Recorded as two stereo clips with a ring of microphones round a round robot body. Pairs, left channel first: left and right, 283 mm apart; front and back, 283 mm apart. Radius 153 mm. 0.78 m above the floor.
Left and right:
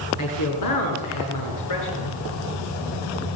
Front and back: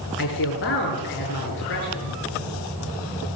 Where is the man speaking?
55° left, 9 m.